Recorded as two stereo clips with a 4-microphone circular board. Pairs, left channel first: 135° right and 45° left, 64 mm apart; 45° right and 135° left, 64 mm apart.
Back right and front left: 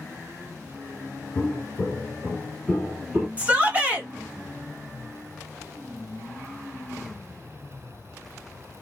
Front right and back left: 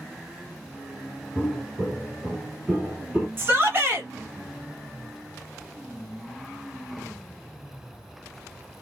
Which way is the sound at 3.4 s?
100° left.